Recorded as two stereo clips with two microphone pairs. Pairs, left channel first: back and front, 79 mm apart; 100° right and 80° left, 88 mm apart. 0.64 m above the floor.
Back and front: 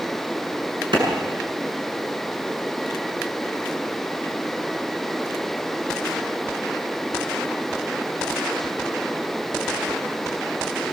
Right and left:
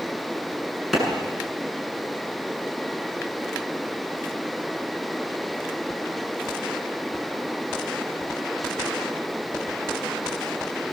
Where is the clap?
10° right, 7.5 m.